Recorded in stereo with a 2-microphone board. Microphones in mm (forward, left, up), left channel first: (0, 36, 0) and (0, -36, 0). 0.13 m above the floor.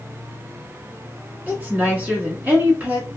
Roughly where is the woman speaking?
Right.